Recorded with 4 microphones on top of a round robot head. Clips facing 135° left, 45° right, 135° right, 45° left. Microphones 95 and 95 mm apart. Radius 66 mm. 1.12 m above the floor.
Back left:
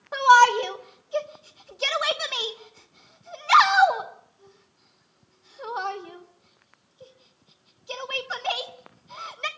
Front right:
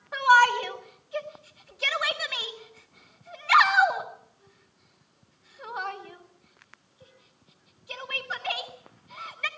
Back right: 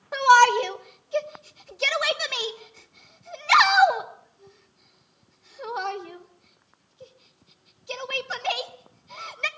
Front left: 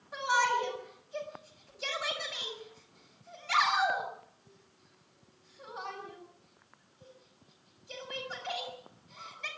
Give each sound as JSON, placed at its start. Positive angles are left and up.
{"t": 0.1, "sound": "a shout", "azimuth_deg": -165, "distance_m": 1.9}